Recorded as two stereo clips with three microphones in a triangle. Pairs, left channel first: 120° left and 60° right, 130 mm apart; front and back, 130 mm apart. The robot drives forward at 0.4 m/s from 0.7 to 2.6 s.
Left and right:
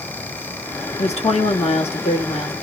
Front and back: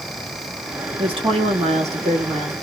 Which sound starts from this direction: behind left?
A woman speaking, at 1.0 s.